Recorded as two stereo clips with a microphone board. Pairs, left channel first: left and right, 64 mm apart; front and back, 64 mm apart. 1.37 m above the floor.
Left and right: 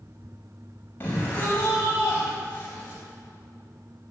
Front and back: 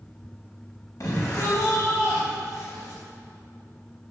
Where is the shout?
30° left, 7.5 m.